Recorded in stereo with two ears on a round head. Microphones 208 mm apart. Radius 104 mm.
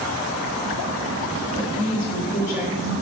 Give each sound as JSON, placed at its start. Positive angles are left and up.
{"t": 1.6, "sound": "a woman speaking", "side_deg": 35, "distance_m": 3.5}